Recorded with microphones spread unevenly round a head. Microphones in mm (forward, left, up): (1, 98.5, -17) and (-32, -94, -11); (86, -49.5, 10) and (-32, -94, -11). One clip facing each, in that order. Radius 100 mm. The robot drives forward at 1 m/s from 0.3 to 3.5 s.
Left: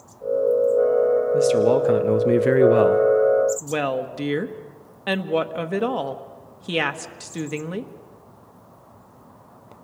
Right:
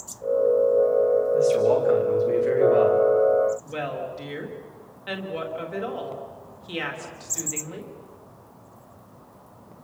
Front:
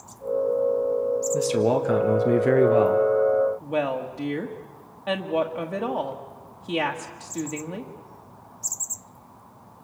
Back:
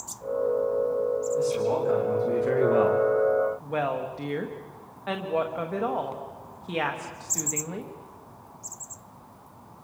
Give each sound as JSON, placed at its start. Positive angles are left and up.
{"t": 1.3, "sound": "a man speaking", "azimuth_deg": 40, "distance_m": 1.9}
{"t": 3.6, "sound": "a woman speaking", "azimuth_deg": 100, "distance_m": 1.3}